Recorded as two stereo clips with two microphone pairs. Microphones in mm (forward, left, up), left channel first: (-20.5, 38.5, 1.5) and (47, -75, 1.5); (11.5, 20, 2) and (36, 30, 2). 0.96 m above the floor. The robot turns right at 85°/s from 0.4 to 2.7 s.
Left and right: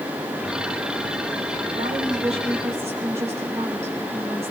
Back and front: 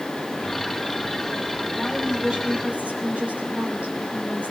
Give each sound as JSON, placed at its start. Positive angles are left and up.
{"t": 1.8, "sound": "a woman speaking", "azimuth_deg": -70, "distance_m": 7.5}